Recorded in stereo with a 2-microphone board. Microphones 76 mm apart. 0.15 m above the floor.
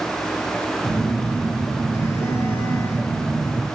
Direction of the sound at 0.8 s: 35° left (ahead or behind).